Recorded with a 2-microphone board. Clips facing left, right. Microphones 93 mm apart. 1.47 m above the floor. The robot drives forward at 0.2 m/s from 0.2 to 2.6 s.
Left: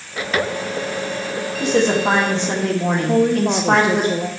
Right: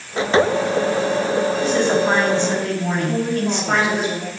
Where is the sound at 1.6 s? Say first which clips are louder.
Left 5 dB; 85° left, 2 m.